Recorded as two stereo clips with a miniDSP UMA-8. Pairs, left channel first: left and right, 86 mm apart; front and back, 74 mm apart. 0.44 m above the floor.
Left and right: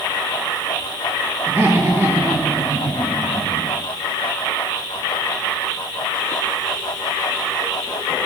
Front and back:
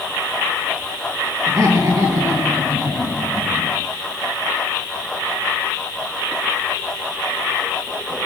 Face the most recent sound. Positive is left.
turn(degrees=-135)